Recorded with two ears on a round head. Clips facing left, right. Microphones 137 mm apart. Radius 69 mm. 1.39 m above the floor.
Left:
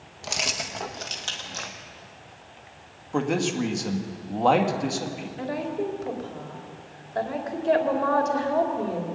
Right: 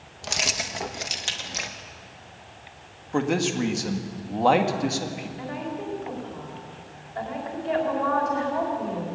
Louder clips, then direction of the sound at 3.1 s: Right 1 dB; centre (ahead or behind).